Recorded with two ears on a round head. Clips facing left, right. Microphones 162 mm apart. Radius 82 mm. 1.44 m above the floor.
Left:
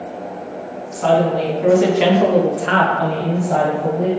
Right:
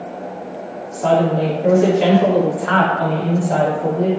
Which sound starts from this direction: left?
A woman speaking, at 0.9 s.